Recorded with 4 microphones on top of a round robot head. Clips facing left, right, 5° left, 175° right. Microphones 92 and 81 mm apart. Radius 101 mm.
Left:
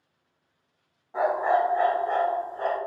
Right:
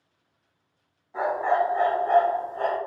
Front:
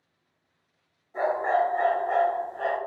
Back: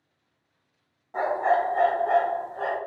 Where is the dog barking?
160° left, 1.0 m; by 2.8 s 100° right, 0.9 m.